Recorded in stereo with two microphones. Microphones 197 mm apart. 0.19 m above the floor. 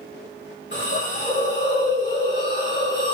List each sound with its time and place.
0.7 s a hiss: 60° left (ahead or behind), 5 m